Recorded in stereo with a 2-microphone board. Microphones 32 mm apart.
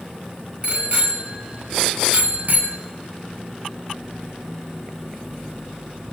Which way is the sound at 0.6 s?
45° right (ahead or behind).